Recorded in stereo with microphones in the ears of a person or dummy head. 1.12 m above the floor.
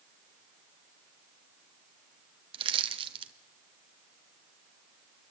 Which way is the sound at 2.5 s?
30° right (ahead or behind).